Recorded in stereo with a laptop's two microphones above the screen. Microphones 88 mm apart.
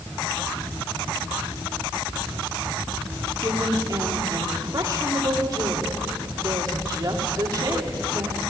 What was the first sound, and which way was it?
A woman speaking, 45° right (ahead or behind).